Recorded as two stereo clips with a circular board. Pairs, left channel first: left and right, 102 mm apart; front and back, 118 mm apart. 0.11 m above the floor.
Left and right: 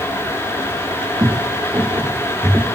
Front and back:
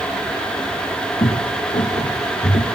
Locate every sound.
1.2 s footsteps: 35° right, 1.3 m; by 2.6 s 15° right, 1.9 m